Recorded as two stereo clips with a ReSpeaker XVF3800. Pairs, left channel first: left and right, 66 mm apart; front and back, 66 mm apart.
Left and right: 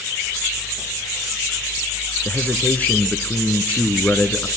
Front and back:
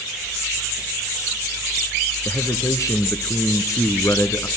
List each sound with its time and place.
2.2 s a man speaking: 25° left, 2.5 m